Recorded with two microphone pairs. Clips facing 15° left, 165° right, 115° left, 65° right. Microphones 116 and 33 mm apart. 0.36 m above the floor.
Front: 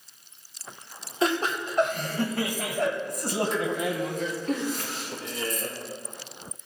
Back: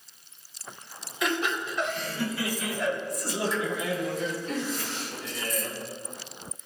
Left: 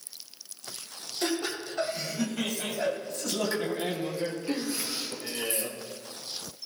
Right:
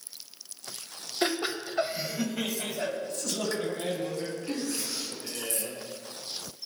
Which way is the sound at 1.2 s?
25° right.